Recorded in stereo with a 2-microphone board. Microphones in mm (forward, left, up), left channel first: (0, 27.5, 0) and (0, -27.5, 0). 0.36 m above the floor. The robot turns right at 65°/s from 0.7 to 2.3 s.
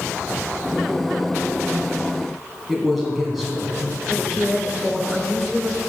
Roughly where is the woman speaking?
Centre.